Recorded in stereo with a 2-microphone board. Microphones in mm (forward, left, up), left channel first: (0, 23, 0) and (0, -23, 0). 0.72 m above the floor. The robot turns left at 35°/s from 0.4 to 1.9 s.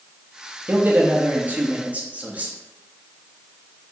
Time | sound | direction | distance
0.7 | a man speaking | 80° right | 0.5 m